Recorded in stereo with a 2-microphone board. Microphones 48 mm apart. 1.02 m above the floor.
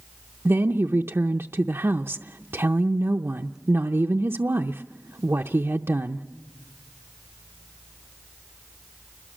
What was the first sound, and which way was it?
A woman speaking, 65° right (ahead or behind).